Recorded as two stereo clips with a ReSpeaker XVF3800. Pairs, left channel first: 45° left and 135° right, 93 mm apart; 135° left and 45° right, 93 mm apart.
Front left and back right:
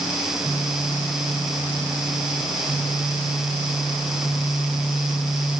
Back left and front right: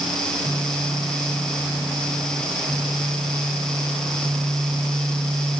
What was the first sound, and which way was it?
Only background noise.